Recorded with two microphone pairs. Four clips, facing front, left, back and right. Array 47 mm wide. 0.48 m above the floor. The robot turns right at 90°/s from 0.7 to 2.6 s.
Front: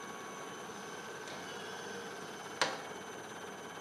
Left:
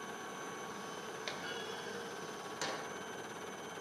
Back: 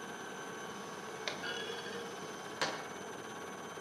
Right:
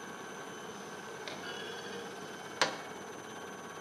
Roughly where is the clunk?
Behind.